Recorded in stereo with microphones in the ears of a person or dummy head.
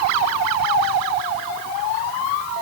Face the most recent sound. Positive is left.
No sound to turn to.